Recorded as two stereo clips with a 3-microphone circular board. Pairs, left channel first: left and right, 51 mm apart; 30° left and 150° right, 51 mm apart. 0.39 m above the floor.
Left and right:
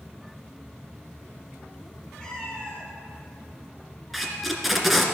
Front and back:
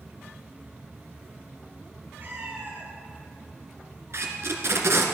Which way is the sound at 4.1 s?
Straight behind.